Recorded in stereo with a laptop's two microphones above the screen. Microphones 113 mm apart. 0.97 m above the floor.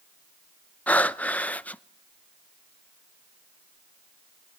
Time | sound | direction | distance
0.9 | breathing | 15° left (ahead or behind) | 0.6 m